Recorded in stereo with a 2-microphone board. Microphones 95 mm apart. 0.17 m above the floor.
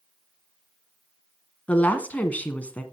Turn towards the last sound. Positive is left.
turn(degrees=15)  # may be behind; listen again after turning